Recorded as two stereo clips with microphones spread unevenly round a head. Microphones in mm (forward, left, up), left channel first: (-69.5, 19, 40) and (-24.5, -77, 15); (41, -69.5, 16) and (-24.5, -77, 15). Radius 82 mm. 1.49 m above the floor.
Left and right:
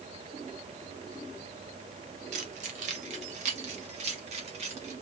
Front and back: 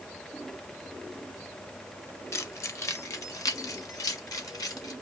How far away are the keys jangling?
About 1.5 m.